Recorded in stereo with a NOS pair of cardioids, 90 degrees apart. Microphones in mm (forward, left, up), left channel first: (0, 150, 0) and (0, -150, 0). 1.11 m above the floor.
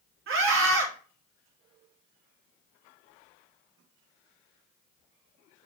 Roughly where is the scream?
Ahead right.